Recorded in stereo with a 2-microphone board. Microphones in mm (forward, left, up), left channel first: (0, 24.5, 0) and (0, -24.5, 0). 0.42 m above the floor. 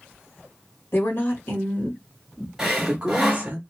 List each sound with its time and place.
0.9 s a woman speaking: 55° left (ahead or behind), 1.5 m; by 3.6 s 35° right (ahead or behind), 1.0 m
2.6 s sawing: 10° right (ahead or behind), 1.9 m